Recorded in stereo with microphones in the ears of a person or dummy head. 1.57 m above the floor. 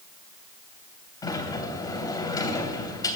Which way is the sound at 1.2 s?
20° left (ahead or behind).